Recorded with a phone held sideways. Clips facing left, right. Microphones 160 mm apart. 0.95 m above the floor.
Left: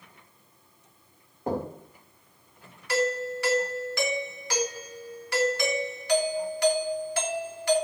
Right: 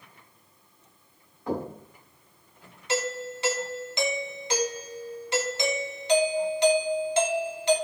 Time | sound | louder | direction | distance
1.5 | knocking | left 1 dB | 45° left (ahead or behind) | 2.5 m
2.9 | a doorbell | left 3 dB | 20° right (ahead or behind) | 1.5 m